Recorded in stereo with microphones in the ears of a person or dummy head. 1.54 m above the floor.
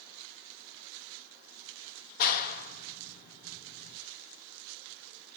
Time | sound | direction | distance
2.2 | a clap | 50° left (ahead or behind) | 1.6 m